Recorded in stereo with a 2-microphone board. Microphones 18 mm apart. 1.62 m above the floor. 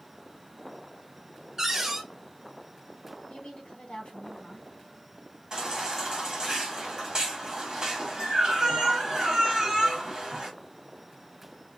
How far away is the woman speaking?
About 2.0 m.